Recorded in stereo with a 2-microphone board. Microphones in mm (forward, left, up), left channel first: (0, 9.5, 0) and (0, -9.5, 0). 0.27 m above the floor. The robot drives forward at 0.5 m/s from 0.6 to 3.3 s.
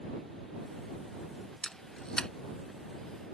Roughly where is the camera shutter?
Left.